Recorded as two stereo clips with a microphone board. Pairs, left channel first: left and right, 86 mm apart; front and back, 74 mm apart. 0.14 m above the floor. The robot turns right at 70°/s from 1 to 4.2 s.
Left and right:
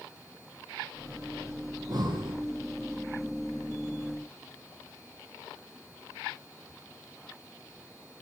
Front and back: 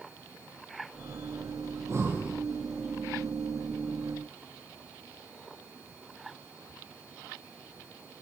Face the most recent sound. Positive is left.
turn(degrees=30)